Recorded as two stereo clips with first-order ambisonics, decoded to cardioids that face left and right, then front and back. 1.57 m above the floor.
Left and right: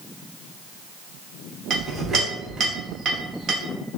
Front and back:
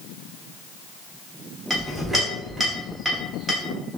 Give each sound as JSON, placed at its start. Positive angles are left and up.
{"t": 1.7, "sound": "a clink", "azimuth_deg": -105, "distance_m": 0.6}